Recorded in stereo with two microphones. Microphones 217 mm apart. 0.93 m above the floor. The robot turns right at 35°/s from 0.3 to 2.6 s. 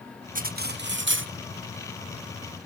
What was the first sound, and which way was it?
Cutlery clinking, 135° right.